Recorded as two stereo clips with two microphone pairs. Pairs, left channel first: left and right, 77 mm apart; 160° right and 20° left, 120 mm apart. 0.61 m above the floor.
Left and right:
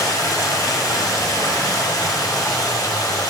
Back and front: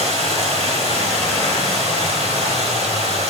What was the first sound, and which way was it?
Running water, 50° left.